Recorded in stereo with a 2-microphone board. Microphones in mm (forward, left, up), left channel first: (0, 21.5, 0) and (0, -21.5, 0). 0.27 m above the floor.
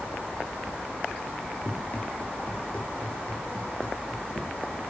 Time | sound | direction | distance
1.6 | running footsteps | 40° left (ahead or behind) | 5 m